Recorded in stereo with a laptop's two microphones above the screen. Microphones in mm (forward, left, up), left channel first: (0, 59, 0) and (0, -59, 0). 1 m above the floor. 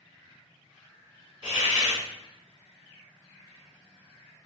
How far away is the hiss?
About 1.6 m.